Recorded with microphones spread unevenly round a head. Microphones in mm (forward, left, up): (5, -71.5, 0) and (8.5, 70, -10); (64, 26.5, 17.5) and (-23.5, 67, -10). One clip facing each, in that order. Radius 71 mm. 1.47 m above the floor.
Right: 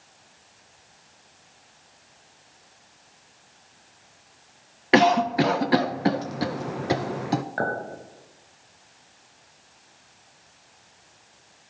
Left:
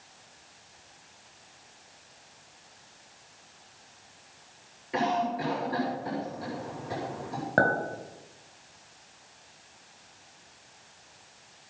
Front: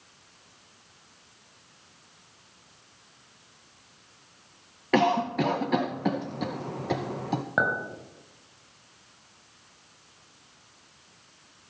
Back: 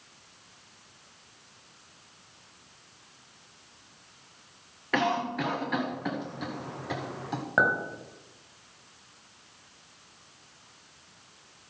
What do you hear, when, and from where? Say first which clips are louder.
4.9 s a cough: right 9 dB, front 5 dB; 90° right, 0.6 m
7.6 s a clink: left 3 dB, back 2 dB; 60° left, 5 m